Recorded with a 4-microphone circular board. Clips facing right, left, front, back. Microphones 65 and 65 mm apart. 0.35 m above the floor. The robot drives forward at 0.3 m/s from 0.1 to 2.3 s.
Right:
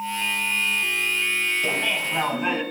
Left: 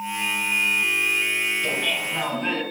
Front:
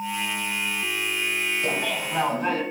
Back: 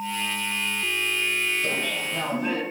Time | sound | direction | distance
1.6 | laughter | 10° right | 2.5 m